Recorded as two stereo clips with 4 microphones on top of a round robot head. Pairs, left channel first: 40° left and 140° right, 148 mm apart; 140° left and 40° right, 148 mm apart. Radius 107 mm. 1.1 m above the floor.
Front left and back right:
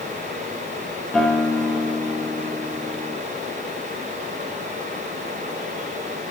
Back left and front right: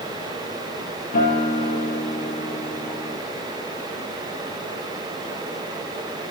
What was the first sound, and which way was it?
A guitar, 130° left.